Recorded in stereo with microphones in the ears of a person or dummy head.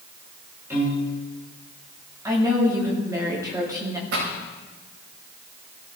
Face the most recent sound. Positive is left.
turn(degrees=-80)